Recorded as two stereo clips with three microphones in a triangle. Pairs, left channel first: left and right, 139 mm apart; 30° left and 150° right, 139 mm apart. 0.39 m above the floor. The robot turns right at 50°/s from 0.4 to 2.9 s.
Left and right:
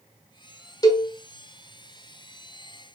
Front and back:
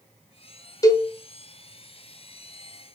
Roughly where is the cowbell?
Ahead left.